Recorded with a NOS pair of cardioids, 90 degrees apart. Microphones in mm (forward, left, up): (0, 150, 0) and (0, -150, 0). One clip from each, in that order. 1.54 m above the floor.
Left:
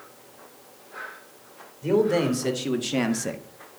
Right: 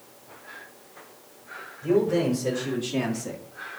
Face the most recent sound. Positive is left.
turn(degrees=40)